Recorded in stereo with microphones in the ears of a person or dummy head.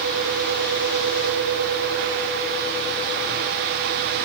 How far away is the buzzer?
I don't hear a buzzer.